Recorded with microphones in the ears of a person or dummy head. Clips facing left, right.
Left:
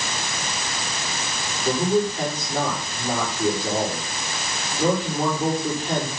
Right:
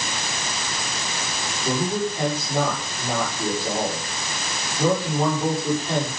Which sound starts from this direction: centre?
A man speaking, at 1.6 s.